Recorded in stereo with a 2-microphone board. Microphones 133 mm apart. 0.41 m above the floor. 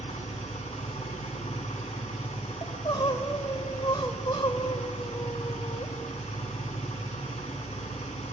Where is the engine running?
55° left (ahead or behind), 1.8 m.